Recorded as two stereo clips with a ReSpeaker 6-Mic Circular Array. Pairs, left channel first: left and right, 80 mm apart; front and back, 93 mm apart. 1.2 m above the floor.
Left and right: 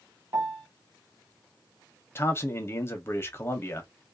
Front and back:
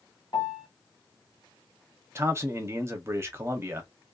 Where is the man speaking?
130° left, 0.6 m.